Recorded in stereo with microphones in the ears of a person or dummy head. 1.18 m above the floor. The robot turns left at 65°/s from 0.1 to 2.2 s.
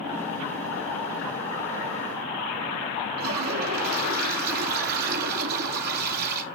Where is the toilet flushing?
50° right (ahead or behind), 1.6 m.